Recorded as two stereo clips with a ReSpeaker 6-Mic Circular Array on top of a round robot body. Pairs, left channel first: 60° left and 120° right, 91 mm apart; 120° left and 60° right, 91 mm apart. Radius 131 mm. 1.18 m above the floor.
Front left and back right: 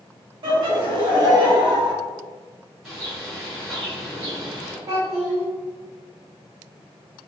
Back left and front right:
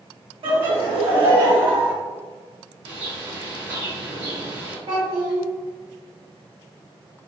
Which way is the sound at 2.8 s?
45° right.